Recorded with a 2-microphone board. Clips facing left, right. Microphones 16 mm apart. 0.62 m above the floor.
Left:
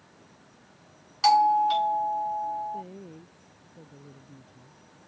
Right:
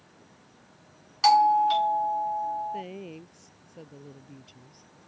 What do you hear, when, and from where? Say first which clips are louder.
1.2 s a doorbell: right 1 dB; 5° right (ahead or behind)
2.7 s a woman speaking: right 2 dB; 75° right (ahead or behind)